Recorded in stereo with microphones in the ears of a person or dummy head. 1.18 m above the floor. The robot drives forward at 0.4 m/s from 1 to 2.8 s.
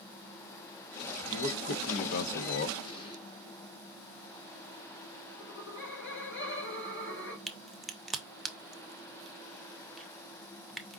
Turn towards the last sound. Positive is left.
turn(degrees=0)  # may be behind; listen again after turning